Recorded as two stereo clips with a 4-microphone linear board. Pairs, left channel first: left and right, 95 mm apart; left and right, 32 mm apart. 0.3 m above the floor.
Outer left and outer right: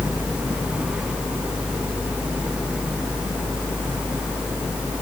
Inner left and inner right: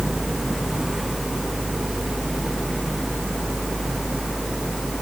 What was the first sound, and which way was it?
Only background noise.